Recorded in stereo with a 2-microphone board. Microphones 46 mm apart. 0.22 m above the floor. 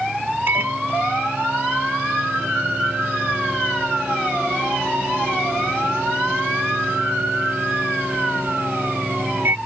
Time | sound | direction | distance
0.5 | a microwave | 55° right (ahead or behind) | ?